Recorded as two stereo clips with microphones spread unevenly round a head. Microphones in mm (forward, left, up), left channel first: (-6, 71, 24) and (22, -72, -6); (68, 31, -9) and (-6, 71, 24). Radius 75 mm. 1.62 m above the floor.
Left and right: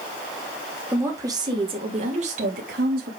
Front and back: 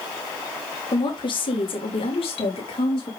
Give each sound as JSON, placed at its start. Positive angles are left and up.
{"t": 0.9, "sound": "a woman speaking", "azimuth_deg": 0, "distance_m": 3.0}